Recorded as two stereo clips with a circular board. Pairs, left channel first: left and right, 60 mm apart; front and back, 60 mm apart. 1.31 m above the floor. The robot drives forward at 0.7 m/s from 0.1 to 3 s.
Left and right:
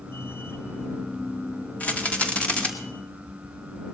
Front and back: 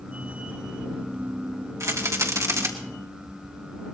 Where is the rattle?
155° left, 2.0 m; by 2.7 s 160° left, 2.5 m.